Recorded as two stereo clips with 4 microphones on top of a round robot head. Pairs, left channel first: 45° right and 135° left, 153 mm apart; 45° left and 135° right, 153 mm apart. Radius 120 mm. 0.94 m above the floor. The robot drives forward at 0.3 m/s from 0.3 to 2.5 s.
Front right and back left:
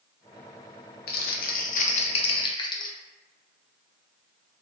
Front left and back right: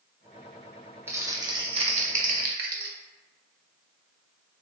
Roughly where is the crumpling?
Ahead right.